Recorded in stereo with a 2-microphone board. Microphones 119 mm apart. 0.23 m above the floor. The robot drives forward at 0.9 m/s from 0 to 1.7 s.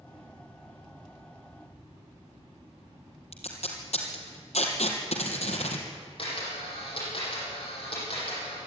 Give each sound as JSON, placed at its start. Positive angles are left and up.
{"t": 3.3, "sound": "tape being pulled", "side_deg": 75, "distance_m": 3.0}
{"t": 6.2, "sound": "a camera shutter", "side_deg": 50, "distance_m": 8.0}